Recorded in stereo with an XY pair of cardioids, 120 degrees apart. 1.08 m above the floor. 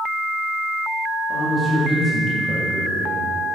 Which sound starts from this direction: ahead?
A man speaking, at 1.3 s.